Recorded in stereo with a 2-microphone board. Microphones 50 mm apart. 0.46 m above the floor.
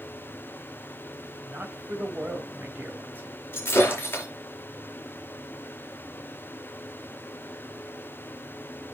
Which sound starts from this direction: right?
A man speaking, at 1.5 s.